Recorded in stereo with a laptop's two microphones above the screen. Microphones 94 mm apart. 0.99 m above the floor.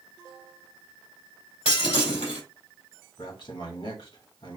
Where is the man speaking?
70° left (ahead or behind), 1.7 m.